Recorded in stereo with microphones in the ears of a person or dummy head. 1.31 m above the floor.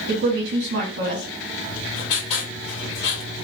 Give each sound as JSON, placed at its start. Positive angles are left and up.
{"t": 0.1, "sound": "a woman speaking", "side_deg": -60, "distance_m": 1.7}
{"t": 1.6, "sound": "writing", "side_deg": 30, "distance_m": 3.0}